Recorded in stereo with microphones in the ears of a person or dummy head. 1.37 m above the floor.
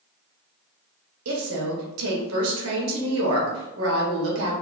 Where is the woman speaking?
70° right (ahead or behind), 1.1 m.